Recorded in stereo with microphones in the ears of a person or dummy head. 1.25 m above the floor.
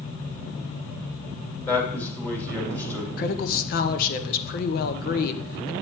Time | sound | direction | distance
1.7 | a man speaking | 10° left (ahead or behind) | 3 m
3.2 | a woman speaking | 50° left (ahead or behind) | 0.8 m